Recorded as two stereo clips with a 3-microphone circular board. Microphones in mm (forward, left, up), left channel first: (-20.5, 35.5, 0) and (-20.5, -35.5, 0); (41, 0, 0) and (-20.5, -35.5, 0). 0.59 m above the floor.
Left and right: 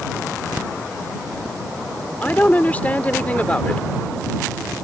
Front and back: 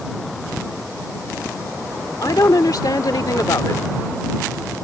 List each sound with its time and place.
2.2 s a woman speaking: 25° left